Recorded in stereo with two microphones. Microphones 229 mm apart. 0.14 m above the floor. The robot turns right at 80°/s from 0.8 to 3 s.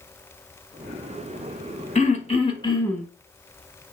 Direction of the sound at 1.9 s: 30° left (ahead or behind).